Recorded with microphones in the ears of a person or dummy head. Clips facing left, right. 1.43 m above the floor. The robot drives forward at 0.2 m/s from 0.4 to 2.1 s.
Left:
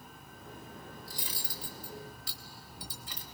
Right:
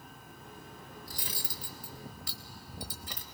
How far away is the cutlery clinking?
About 0.8 m.